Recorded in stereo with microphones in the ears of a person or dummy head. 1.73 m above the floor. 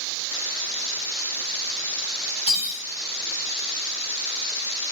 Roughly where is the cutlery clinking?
Centre.